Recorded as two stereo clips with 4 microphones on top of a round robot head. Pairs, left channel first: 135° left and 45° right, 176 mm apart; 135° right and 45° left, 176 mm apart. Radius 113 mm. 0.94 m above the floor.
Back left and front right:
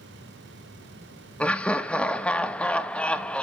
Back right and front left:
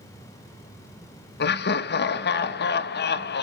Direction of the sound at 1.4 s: 145° right.